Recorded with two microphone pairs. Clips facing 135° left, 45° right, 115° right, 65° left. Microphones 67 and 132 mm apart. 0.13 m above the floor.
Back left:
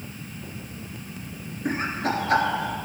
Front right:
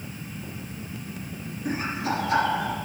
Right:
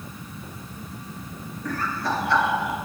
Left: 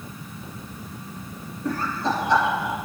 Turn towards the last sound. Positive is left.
turn(degrees=140)